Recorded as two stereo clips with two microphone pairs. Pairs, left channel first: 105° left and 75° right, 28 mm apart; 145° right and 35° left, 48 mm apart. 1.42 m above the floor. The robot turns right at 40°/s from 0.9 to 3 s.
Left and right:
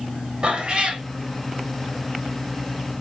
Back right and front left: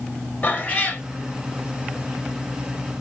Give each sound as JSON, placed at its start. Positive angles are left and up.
{"t": 0.4, "sound": "a cat meowing", "azimuth_deg": -100, "distance_m": 1.0}